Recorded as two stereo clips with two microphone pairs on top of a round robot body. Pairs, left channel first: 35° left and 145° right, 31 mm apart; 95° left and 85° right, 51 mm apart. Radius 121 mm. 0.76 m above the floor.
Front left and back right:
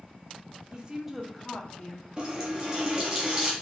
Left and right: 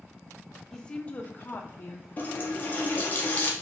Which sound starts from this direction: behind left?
A running tap, at 2.2 s.